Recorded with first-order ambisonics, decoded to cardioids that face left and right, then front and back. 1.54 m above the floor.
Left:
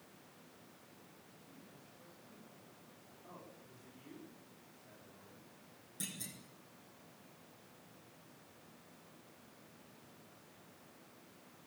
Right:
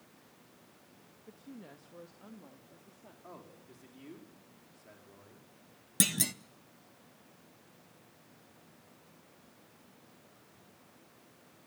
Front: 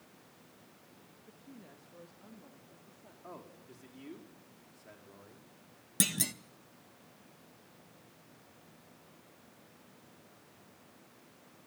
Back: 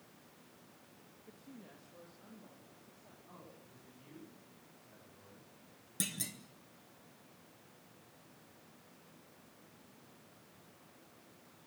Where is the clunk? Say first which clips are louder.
Right 16 dB, front 8 dB; 65° right, 0.8 m.